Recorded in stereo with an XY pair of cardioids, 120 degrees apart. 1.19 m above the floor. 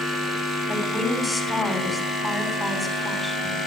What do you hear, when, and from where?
0.7 s a woman speaking: 5° left, 8 m